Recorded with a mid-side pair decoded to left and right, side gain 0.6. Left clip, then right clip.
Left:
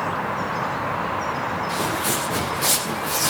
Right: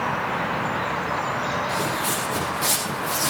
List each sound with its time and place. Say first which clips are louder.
1.7 s footsteps: left 1 dB; 5° left, 6.5 m